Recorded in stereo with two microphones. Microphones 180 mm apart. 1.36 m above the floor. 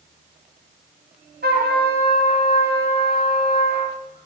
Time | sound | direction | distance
1.4 | a trumpet | 60° right (ahead or behind) | 0.8 m